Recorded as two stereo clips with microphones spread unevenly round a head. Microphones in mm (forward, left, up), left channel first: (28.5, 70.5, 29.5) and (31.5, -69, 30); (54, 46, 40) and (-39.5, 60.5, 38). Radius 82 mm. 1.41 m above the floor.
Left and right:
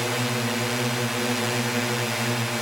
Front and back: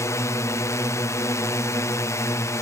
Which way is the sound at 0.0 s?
Straight ahead.